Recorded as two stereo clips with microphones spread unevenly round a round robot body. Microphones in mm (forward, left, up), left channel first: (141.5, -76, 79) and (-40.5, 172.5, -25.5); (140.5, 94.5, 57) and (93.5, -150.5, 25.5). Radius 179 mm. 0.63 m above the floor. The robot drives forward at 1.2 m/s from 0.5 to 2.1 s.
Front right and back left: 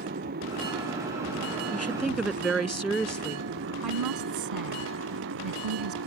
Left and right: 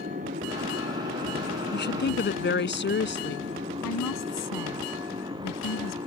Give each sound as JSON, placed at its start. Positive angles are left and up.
{"t": 0.0, "sound": "a motorcycle", "azimuth_deg": -170}
{"t": 1.7, "sound": "a woman speaking", "azimuth_deg": 35}
{"t": 3.8, "sound": "a woman speaking", "azimuth_deg": 110}